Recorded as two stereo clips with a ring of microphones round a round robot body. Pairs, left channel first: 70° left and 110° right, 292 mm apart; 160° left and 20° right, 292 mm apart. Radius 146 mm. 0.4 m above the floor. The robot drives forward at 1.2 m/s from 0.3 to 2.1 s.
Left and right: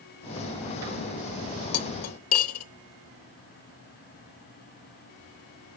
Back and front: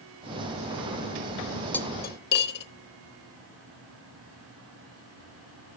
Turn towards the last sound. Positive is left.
turn(degrees=105)